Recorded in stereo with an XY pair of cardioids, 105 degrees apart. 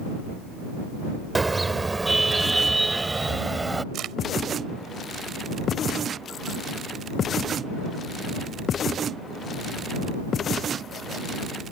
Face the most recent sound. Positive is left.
turn(degrees=-70)